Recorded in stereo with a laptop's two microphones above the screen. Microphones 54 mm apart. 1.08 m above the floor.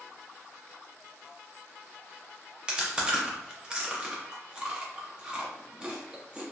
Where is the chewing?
20° right (ahead or behind), 0.6 m.